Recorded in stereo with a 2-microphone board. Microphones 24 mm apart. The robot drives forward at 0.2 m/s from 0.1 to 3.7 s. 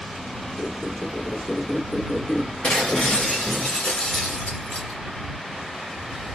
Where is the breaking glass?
60° left (ahead or behind), 2 m; by 5.0 s 55° left (ahead or behind), 2 m.